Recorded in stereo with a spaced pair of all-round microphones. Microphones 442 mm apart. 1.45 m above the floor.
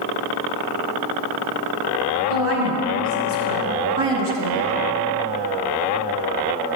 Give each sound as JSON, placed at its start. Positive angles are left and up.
{"t": 2.3, "sound": "a woman speaking", "side_deg": -65, "distance_m": 2.0}